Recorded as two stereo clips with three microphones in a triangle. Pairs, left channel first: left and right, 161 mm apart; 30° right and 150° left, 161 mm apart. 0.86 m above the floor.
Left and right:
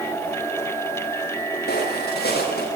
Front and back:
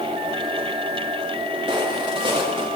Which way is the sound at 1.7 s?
90° left.